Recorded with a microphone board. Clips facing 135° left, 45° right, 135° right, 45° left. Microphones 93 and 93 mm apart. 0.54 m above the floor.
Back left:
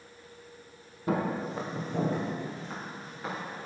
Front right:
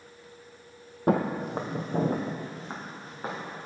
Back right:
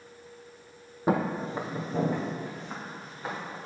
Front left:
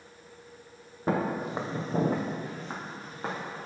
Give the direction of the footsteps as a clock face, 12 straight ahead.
2 o'clock.